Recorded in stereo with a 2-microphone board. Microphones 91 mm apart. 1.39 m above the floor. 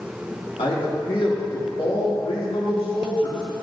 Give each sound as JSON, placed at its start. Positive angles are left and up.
{"t": 0.6, "sound": "a man speaking", "side_deg": 75, "distance_m": 3.0}